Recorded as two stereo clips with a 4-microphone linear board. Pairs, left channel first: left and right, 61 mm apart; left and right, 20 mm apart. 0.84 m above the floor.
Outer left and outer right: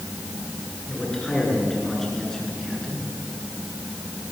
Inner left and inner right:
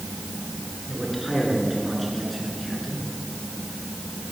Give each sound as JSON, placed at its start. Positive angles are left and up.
{"t": 0.9, "sound": "a man speaking", "side_deg": 5, "distance_m": 10.0}